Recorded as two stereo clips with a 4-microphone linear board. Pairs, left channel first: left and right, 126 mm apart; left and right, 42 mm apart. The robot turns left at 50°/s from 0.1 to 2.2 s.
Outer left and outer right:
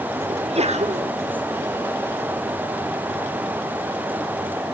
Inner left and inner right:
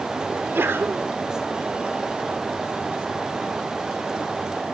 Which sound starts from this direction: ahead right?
A sneeze, at 0.3 s.